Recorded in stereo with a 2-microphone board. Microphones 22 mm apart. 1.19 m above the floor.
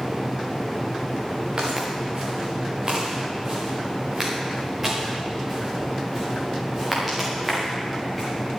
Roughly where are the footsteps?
Right.